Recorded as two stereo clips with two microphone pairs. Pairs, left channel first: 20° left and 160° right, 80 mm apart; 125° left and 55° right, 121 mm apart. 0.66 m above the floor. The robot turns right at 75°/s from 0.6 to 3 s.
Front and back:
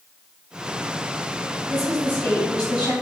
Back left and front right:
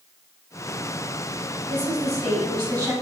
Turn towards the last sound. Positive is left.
turn(degrees=20)